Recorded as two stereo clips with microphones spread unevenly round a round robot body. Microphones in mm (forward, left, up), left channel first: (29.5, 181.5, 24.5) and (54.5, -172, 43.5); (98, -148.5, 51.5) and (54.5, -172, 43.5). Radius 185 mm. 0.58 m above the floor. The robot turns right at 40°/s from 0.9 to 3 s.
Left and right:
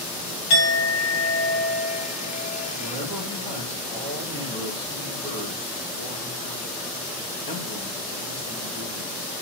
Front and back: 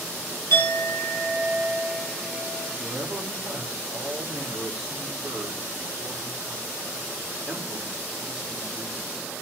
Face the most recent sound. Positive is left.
turn(degrees=170)